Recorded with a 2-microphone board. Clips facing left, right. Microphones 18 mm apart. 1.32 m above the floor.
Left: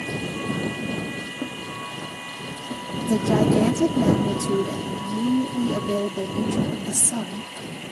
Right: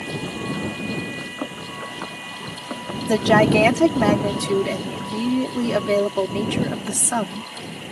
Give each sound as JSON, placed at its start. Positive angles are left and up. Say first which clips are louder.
{"t": 1.2, "sound": "running footsteps", "louder": "right 1 dB", "side_deg": -60}
{"t": 3.1, "sound": "a woman speaking", "louder": "right 4 dB", "side_deg": -80}